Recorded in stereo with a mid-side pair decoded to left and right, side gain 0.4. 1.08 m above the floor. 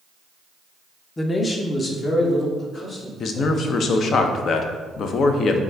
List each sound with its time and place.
1.2 s a man speaking: 25° left, 0.6 m; by 4.2 s 55° left, 2.5 m
3.2 s a man speaking: 65° left, 0.5 m